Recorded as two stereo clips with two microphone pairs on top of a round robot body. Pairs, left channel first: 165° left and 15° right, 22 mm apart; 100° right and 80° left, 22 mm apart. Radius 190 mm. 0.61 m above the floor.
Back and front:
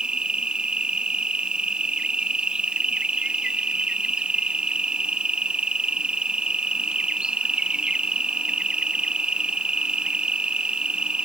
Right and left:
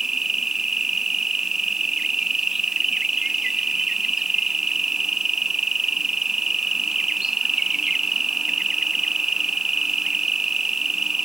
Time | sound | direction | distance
0.0 | an insect | 20° left | ?